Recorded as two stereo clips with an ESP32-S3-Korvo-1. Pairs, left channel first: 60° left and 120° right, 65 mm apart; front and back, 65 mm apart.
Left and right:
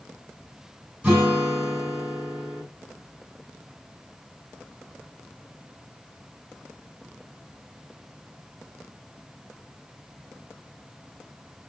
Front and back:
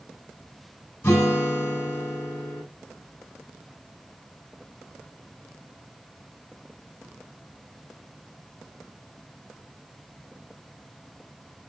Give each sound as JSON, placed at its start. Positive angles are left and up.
{"t": 1.0, "sound": "a guitar", "azimuth_deg": -55, "distance_m": 5.0}